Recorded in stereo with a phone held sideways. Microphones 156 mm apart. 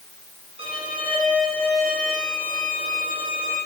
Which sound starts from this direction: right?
A violin, at 0.6 s.